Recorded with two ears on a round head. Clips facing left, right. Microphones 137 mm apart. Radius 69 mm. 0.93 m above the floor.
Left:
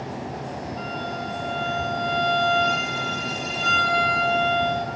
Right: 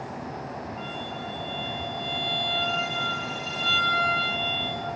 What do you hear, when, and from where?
0.8 s a violin: 75° left (ahead or behind), 3 m